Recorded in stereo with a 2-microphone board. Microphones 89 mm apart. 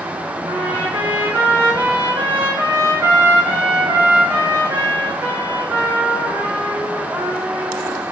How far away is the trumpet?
About 6 m.